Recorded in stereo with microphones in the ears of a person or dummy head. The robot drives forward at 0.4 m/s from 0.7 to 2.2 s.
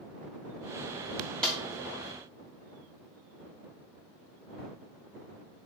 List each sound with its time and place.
1.4 s a snare drum: 5° left (ahead or behind), 1.0 m